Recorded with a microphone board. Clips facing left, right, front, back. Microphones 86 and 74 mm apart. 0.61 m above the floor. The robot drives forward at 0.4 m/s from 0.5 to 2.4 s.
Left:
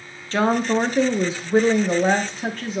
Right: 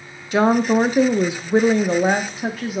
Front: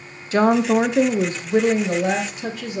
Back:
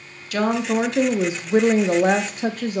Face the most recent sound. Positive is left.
turn(degrees=-165)